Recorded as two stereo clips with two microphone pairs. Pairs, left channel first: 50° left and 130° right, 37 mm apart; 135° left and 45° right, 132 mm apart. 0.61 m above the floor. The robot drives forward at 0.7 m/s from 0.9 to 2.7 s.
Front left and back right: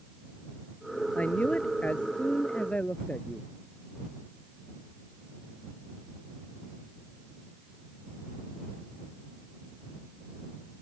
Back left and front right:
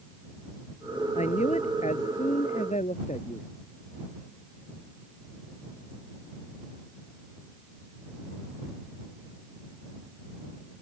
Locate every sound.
1.1 s a man speaking: 105° left; by 3.5 s 110° left